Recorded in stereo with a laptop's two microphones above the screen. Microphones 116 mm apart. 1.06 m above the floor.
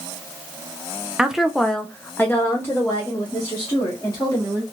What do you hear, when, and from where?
1.2 s a woman speaking: 10° right (ahead or behind), 0.6 m; by 4.6 s 25° left (ahead or behind), 1.8 m